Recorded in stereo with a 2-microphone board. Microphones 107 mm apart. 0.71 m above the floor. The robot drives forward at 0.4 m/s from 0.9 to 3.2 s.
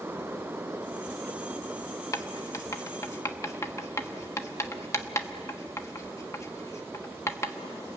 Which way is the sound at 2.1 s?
30° left (ahead or behind).